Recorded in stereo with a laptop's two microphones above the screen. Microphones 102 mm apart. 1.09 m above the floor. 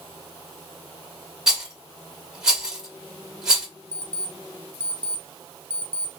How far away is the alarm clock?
About 0.7 m.